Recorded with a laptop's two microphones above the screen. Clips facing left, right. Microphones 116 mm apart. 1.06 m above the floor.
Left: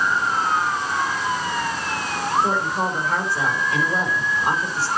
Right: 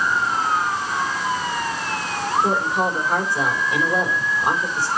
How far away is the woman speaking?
About 4 m.